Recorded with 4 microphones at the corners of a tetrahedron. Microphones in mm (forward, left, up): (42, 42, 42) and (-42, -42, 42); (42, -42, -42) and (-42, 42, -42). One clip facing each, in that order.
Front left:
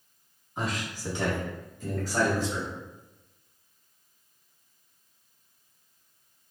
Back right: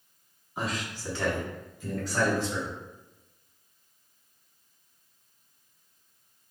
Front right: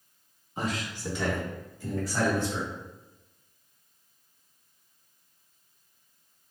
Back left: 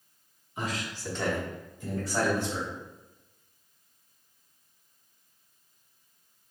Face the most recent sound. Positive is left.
turn(degrees=85)